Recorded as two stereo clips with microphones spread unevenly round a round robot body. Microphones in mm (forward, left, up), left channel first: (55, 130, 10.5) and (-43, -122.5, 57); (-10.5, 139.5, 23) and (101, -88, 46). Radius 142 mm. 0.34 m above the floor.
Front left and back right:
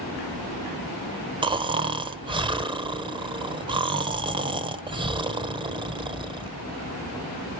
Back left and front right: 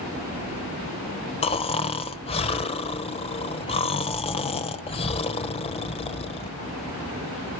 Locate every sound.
1.4 s snoring: 170° left, 1.0 m